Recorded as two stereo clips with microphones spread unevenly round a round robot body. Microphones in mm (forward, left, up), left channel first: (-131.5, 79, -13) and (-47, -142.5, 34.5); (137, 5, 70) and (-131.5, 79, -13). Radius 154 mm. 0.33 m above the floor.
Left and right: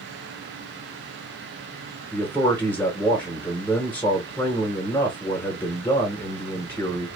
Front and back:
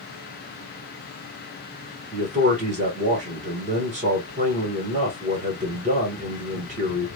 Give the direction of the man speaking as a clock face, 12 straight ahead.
6 o'clock.